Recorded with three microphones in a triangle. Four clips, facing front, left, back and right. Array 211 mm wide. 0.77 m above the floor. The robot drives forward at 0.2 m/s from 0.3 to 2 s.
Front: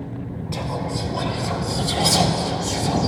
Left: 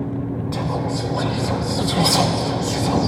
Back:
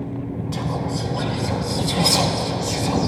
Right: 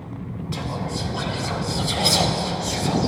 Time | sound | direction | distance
0.5 | whispering | 80° left | 1.3 m